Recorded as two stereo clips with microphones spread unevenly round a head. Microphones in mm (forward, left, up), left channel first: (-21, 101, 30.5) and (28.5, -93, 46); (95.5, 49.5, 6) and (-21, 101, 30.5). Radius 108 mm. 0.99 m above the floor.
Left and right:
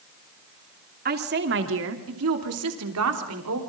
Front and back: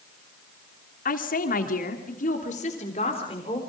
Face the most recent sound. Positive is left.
turn(degrees=-90)